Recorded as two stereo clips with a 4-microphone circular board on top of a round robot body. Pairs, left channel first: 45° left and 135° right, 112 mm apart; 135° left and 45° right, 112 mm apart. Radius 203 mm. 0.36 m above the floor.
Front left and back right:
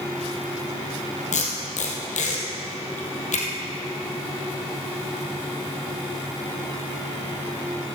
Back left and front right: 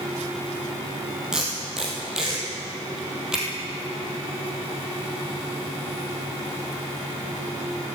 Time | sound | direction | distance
1.3 | tape being pulled | 40° left | 2.5 m